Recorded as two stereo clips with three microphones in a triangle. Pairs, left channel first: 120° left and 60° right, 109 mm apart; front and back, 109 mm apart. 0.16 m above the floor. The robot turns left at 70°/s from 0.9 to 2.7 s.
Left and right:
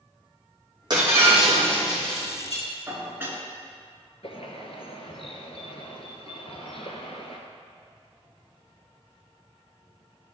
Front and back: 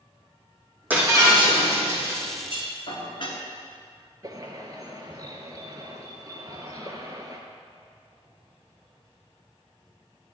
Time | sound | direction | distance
0.9 | breaking glass | 105° right | 3 m
2.9 | dishes clattering | 5° left | 1.4 m
4.2 | a bird | 130° left | 1.0 m